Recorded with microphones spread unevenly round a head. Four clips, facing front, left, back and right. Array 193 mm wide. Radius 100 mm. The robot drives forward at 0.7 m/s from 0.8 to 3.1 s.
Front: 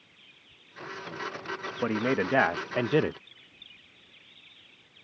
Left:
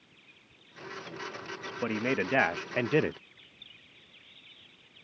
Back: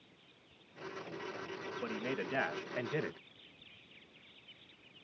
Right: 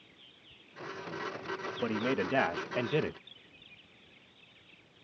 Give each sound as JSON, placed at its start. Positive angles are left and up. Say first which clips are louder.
{"t": 1.8, "sound": "a man speaking", "louder": "left 2 dB, front 13 dB", "azimuth_deg": 20}